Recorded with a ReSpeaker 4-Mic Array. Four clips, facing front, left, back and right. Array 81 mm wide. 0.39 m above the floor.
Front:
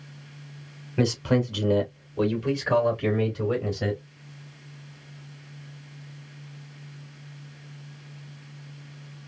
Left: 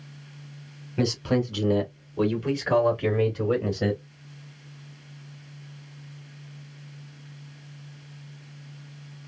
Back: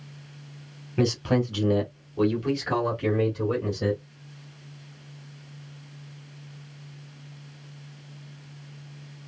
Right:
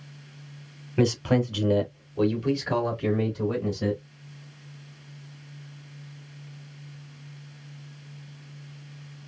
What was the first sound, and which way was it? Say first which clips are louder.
A man speaking: right 2 dB, even; 95° right.